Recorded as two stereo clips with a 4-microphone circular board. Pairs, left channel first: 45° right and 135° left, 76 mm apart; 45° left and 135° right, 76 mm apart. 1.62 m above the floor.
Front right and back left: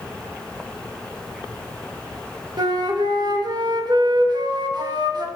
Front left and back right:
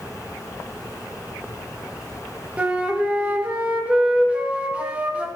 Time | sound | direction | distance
2.6 | a flute | 150° left | 1.8 m